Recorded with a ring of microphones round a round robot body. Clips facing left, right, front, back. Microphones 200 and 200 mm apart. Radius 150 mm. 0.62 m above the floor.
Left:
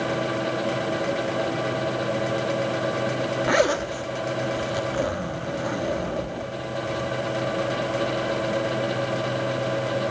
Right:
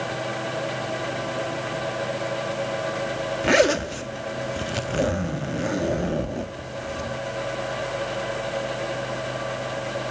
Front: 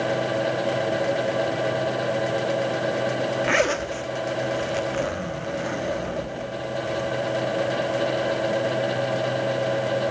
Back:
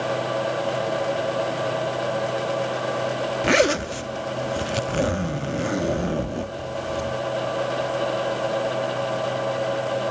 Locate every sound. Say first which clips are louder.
3.4 s a zipper: right 4 dB, back 8 dB; 150° right, 1.1 m